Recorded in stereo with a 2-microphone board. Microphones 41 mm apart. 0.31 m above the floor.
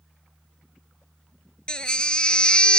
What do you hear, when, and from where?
1.7 s a baby crying: 20° left (ahead or behind)